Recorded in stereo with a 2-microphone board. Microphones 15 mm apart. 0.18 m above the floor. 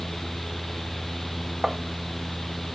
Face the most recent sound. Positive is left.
turn(degrees=-45)  # may be behind; listen again after turning